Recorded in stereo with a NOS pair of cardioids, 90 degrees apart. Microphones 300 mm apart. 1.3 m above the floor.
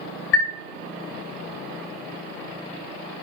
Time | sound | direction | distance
0.3 | a chime | 45° left | 0.6 m